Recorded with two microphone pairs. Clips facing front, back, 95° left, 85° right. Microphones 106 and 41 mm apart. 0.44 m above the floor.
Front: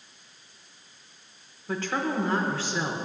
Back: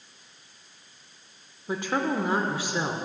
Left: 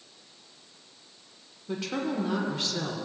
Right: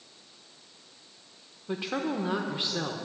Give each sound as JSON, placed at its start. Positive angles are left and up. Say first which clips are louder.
{"t": 1.7, "sound": "a woman speaking", "louder": "back 2 dB, even", "azimuth_deg": -125, "distance_m": 0.7}